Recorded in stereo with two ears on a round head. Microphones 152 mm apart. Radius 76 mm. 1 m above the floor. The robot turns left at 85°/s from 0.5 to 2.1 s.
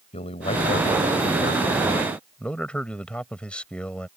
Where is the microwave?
I don't hear a microwave.